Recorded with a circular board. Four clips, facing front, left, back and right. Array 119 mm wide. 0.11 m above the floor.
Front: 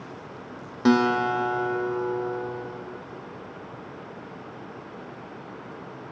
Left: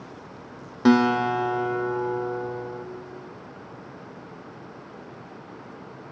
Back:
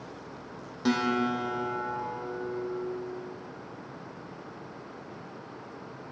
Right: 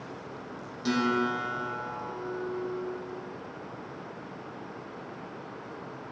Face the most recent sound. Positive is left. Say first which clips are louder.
# left 9 dB, front 6 dB
turn(degrees=60)